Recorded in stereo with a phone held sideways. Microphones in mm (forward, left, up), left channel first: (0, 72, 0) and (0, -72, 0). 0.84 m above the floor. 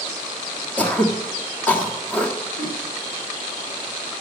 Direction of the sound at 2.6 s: 70° left (ahead or behind).